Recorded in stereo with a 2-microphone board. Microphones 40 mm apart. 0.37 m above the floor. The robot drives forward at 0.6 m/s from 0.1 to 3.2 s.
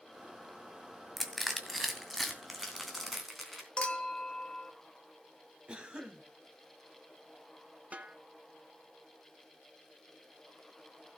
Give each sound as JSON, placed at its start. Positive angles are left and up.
{"t": 1.2, "sound": "crushing", "side_deg": 5, "distance_m": 1.8}
{"t": 3.8, "sound": "a clink", "side_deg": 25, "distance_m": 1.0}
{"t": 5.7, "sound": "a cough", "side_deg": -20, "distance_m": 2.0}
{"t": 7.9, "sound": "a snare drum", "side_deg": -35, "distance_m": 1.5}